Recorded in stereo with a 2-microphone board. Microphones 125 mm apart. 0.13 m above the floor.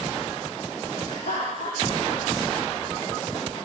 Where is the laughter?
65° left (ahead or behind), 6 m; by 3.6 s 60° left (ahead or behind), 8 m.